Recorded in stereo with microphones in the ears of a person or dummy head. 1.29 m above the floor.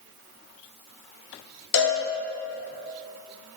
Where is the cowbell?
60° left (ahead or behind), 1.4 m.